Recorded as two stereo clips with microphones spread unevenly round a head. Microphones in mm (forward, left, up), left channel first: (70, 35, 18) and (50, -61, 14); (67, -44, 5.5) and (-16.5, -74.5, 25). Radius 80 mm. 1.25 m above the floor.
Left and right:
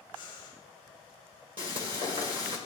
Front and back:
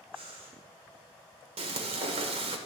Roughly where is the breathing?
Behind.